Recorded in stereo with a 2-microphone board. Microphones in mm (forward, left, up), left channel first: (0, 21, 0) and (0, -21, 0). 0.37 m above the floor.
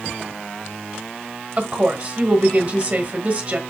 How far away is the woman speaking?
About 1.4 m.